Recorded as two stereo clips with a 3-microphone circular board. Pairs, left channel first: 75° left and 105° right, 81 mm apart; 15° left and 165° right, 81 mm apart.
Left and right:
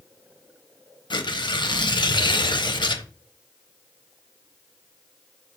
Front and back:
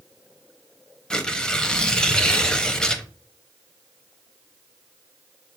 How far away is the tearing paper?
About 0.6 m.